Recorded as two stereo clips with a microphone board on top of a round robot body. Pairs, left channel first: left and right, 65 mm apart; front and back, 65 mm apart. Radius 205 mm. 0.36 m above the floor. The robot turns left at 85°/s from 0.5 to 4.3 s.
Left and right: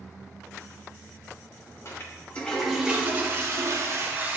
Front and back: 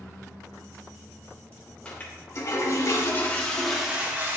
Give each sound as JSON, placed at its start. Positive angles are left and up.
{"t": 1.9, "sound": "a toilet flushing", "azimuth_deg": 70, "distance_m": 1.9}